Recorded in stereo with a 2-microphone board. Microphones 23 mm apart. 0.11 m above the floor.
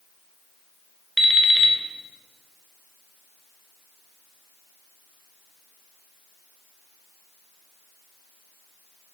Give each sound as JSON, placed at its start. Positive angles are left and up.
{"t": 1.2, "sound": "an alarm clock", "side_deg": 10, "distance_m": 0.5}